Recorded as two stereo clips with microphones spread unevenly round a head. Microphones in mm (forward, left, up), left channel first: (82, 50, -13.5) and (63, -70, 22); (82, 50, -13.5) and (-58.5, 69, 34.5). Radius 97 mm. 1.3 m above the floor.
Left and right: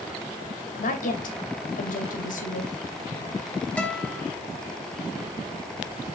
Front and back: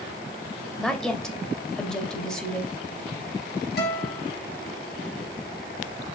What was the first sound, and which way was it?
A woman speaking, 80° left.